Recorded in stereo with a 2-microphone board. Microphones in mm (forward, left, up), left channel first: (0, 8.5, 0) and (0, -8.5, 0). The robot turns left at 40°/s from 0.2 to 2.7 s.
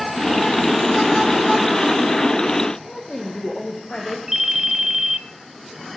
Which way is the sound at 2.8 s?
55° left (ahead or behind).